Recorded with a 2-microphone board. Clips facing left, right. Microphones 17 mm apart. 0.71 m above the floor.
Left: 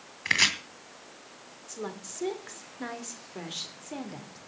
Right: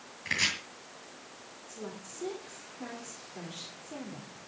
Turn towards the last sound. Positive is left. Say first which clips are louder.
# left 5 dB
turn(degrees=40)  # may be behind; listen again after turning